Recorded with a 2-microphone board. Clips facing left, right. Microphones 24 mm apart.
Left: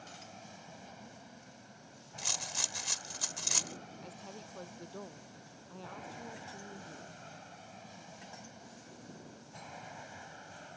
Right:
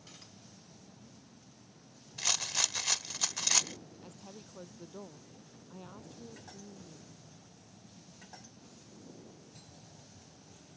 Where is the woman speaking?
10° left (ahead or behind).